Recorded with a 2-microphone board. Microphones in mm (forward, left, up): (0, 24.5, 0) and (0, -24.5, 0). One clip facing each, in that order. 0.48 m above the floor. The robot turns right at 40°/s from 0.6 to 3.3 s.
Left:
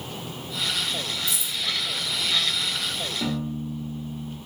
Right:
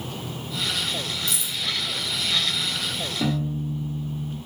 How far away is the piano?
About 0.9 m.